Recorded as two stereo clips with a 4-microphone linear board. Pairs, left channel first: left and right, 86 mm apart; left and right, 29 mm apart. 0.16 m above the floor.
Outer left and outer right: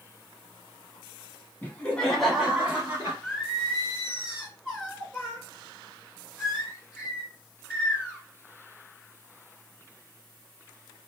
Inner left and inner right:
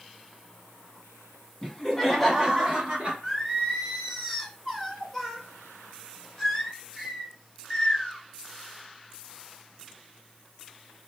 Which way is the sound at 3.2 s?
5° right (ahead or behind).